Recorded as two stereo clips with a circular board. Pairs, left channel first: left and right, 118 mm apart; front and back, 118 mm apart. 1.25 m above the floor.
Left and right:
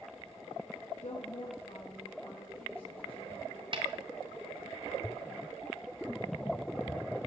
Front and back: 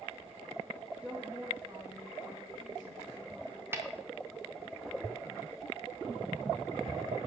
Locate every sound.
1.0 s a woman speaking: 100° left, 1.4 m; by 3.6 s 130° left, 3.5 m
3.7 s a snare drum: 115° right, 1.5 m